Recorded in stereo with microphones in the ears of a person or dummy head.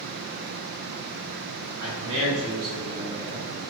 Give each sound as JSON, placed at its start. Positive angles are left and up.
{"t": 1.8, "sound": "a man speaking", "side_deg": -80, "distance_m": 1.1}